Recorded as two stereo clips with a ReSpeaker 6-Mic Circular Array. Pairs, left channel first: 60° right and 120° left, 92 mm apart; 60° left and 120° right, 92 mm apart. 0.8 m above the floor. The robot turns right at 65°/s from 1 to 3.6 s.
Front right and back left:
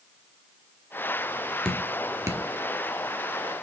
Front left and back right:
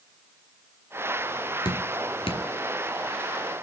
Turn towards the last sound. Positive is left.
turn(degrees=150)